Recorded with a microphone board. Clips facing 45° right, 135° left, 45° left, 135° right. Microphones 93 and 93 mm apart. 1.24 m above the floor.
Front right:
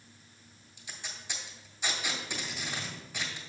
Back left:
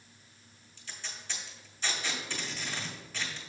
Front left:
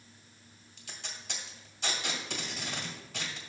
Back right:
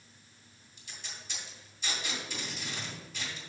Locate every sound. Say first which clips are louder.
0.8 s tape being pulled: even, front left 2 dB; 35° left, 2 m